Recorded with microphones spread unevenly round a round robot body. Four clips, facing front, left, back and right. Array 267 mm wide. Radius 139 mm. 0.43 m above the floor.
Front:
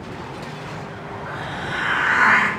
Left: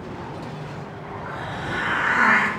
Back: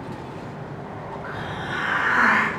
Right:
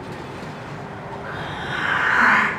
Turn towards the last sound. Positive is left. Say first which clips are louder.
# even, front 3 dB
turn(degrees=-135)